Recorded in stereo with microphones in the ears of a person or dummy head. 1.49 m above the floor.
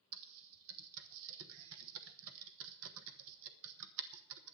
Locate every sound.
0.1 s typing on a keyboard: 70° right (ahead or behind), 0.9 m